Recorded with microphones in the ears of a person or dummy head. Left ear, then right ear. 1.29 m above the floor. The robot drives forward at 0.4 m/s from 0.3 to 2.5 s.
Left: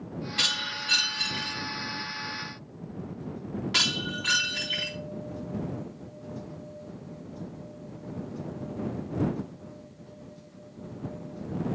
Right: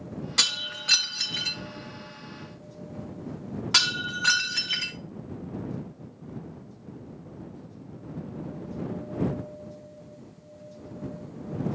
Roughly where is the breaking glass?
Right.